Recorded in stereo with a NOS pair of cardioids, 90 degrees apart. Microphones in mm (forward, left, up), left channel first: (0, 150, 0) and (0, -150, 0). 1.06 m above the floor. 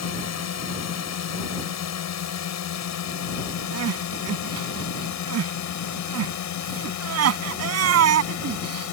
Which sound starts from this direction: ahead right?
Crying, at 3.7 s.